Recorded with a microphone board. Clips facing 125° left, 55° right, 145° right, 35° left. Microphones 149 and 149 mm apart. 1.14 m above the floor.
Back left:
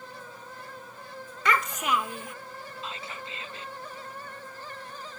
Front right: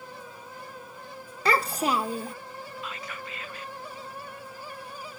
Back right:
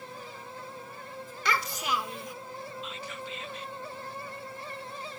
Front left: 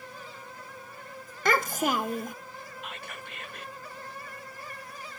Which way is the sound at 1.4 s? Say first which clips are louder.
Front right 2 dB, front left 5 dB; straight ahead.